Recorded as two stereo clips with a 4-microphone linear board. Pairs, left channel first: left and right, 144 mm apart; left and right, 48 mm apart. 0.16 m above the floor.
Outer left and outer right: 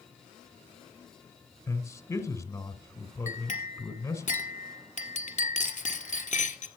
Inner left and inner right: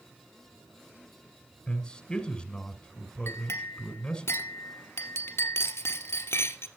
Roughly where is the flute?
No flute in this recording.